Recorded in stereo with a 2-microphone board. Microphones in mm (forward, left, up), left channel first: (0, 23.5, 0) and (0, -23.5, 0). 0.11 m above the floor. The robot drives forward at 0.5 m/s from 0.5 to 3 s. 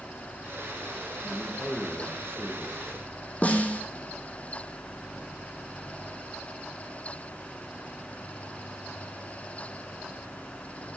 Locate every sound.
1.2 s a man speaking: 20° left (ahead or behind), 2.0 m; by 2.8 s 15° left (ahead or behind), 2.5 m
3.4 s a snare drum: 35° left (ahead or behind), 1.4 m